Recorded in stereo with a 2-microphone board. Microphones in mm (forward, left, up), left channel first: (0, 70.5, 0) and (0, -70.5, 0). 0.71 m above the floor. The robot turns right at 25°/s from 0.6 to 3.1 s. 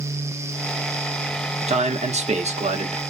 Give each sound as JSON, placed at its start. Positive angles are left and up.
{"t": 1.7, "sound": "a man speaking", "azimuth_deg": -105, "distance_m": 1.2}